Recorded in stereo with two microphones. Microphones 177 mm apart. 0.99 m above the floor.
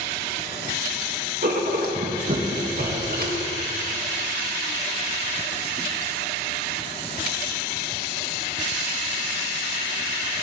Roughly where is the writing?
Right.